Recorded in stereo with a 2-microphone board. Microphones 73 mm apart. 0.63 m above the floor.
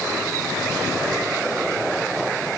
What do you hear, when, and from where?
Only background noise.